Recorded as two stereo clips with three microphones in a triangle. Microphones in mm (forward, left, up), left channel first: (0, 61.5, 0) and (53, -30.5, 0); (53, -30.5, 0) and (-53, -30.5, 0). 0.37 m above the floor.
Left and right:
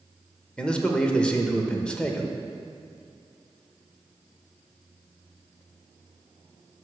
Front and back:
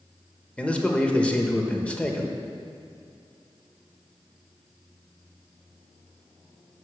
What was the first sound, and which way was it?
A man speaking, 55° left.